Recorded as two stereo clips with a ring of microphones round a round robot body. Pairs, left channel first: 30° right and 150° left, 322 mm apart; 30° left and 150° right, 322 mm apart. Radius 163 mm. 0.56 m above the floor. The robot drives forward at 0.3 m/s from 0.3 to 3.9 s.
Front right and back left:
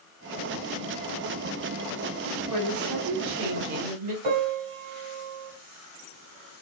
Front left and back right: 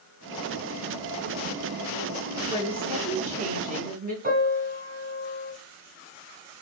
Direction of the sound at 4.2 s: 145° left.